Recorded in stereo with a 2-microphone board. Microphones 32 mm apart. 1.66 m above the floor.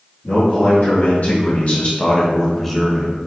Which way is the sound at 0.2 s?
75° left (ahead or behind).